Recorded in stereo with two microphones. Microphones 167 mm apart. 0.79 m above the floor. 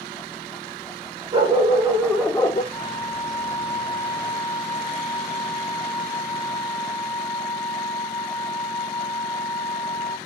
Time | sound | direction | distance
1.3 | a dog barking | 30° right (ahead or behind) | 1.2 m
2.7 | a flute | 15° right (ahead or behind) | 2.5 m